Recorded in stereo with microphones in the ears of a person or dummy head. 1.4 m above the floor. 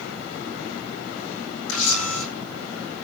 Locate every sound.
1.7 s a camera shutter: 80° left, 7.5 m